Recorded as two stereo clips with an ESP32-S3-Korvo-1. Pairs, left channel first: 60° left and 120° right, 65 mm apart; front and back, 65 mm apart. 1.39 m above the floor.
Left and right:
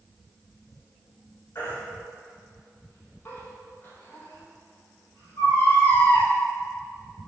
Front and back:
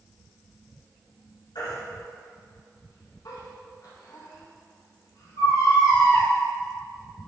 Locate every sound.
1.6 s a baby crying: 10° left, 4 m